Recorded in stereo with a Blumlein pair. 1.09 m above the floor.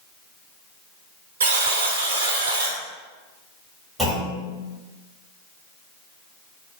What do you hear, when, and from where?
1.4 s a buzzer: 65° right, 1.0 m
4.0 s a clunk: straight ahead, 2.0 m